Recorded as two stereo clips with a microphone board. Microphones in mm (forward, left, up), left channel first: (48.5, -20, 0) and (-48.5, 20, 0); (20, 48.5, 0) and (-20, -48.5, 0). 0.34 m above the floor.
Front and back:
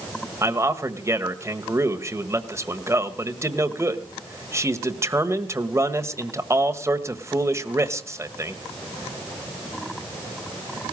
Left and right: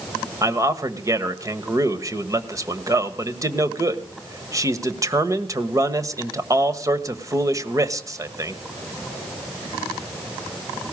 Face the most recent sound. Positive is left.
turn(degrees=-150)